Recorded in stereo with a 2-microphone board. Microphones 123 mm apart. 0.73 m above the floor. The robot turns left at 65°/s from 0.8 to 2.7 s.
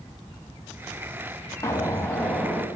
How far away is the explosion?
About 0.9 m.